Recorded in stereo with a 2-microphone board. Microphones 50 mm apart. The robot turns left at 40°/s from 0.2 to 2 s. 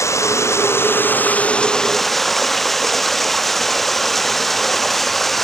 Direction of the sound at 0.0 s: 75° left.